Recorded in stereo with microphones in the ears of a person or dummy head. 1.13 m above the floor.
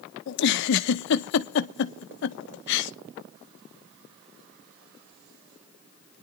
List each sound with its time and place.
0.3 s a giggle: 60° left (ahead or behind), 0.7 m